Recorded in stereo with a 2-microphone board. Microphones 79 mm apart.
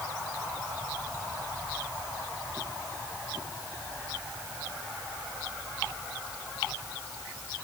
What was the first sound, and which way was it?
Only background noise.